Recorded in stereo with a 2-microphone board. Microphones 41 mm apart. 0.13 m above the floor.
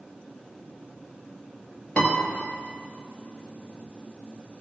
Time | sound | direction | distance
2.0 | a piano | 35° left (ahead or behind) | 1.9 m